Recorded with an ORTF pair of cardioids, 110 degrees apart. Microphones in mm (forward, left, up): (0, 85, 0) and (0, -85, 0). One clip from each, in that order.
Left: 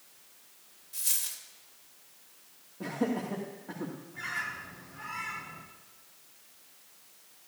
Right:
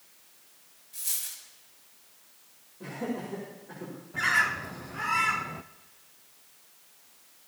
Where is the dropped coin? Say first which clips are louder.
Left 2 dB; 30° left, 2.5 m.